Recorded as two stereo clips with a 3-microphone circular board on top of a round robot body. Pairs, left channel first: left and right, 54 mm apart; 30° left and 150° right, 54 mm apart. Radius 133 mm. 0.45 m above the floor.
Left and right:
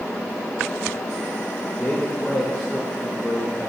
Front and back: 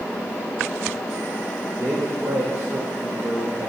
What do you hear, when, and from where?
1.8 s a man speaking: 170° left, 2.5 m